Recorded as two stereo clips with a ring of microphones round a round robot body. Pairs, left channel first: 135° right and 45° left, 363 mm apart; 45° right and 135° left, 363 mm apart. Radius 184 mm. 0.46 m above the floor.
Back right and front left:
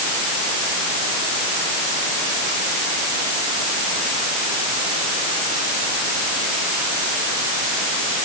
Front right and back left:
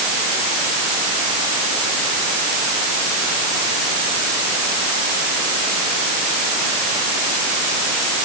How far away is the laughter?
No laughter in this recording.